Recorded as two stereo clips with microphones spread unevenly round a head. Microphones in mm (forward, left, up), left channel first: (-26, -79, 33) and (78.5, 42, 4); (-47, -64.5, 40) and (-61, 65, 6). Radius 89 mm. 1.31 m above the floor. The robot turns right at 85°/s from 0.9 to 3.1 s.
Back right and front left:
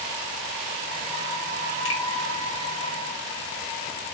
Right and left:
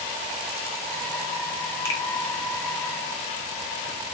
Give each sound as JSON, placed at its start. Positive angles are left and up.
{"t": 1.9, "sound": "a finger snap", "azimuth_deg": -155, "distance_m": 1.5}